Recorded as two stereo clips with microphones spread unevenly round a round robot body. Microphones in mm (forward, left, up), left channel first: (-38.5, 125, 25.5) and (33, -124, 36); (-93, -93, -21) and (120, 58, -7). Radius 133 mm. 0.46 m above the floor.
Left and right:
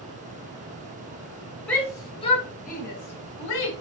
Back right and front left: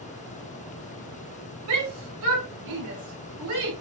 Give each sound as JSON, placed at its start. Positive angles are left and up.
{"t": 1.7, "sound": "a shout", "azimuth_deg": 20, "distance_m": 2.5}